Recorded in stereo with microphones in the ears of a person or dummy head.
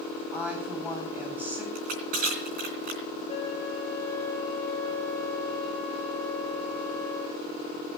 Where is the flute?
5° right (ahead or behind), 5 m.